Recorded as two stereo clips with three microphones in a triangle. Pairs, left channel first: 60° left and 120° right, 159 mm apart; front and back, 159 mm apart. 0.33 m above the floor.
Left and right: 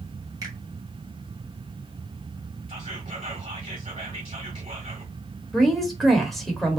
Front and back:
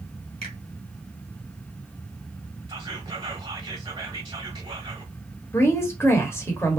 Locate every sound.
0.4 s a finger snap: 175° right, 1.7 m
2.7 s whispering: 140° right, 1.8 m
5.5 s a woman speaking: 25° right, 0.9 m